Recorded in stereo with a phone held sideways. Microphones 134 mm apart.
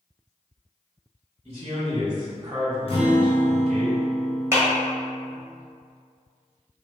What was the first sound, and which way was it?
A man speaking, 40° right (ahead or behind).